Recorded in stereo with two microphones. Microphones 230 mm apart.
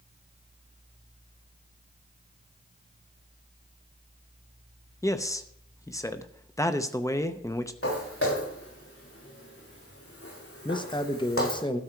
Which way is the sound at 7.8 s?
75° left (ahead or behind).